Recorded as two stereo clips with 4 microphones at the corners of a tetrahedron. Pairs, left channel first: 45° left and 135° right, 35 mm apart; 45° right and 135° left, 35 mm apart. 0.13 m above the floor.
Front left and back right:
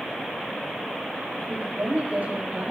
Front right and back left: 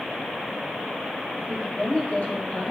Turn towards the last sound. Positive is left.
turn(degrees=-100)